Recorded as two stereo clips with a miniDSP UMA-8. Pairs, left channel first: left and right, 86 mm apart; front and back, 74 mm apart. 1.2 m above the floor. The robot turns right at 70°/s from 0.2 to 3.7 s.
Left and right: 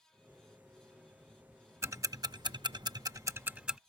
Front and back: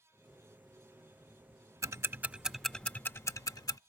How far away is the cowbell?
No cowbell in this recording.